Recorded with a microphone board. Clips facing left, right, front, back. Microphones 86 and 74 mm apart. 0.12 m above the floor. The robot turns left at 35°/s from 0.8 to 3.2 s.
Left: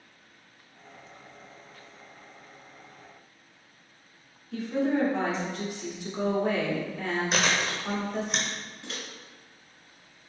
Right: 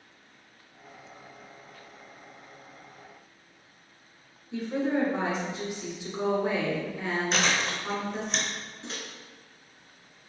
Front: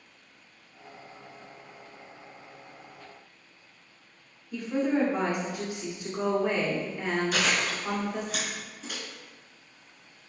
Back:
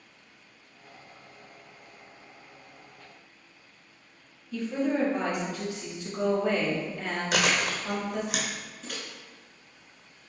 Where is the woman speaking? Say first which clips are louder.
Left 1 dB, front 1 dB; 45° right, 1.2 m.